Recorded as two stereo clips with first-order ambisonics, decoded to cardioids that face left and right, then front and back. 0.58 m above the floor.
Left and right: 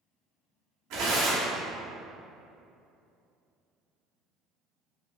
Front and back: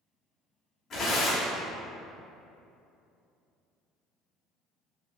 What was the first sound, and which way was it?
Tearing paper, 65° right.